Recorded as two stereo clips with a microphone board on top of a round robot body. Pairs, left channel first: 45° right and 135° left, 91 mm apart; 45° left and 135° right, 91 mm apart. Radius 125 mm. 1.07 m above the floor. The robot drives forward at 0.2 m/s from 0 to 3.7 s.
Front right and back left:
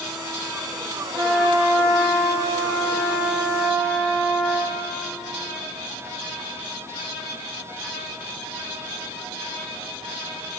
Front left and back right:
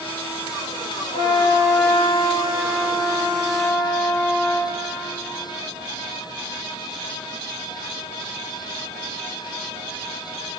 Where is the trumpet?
55° left, 2.5 m; by 4.7 s 65° left, 2 m.